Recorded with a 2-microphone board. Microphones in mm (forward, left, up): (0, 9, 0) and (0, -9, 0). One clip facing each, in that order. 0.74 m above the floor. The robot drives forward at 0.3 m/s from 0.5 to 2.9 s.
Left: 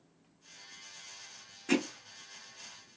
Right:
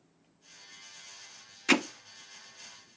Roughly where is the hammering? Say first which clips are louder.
Right 5 dB; right.